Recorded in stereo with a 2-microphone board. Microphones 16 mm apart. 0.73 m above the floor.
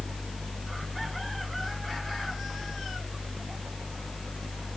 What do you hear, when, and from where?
Only background noise.